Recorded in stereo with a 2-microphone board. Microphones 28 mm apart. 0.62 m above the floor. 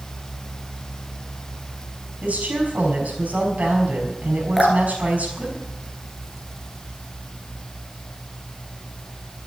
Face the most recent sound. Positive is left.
turn(degrees=10)  # may be behind; listen again after turning